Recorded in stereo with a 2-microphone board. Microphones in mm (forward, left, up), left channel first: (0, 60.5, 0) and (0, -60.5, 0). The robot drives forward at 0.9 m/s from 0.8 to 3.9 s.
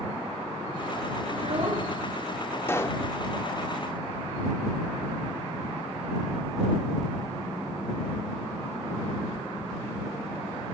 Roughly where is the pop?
Centre.